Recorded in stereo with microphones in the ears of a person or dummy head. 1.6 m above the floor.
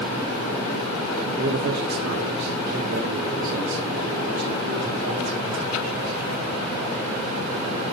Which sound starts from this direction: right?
A man speaking, at 1.4 s.